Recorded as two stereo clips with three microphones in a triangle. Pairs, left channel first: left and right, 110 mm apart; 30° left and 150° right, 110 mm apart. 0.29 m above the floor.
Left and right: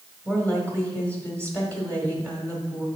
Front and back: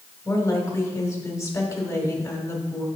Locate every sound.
0.2 s a woman speaking: 25° left, 1.4 m